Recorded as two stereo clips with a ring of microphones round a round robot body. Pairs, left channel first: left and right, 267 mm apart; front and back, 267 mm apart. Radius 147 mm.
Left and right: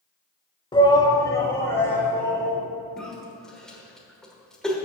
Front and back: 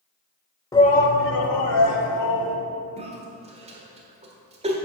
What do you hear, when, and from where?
0.7 s a shout: 50° left, 1.0 m; by 2.5 s 5° left, 3.5 m
3.0 s a cough: 175° left, 1.5 m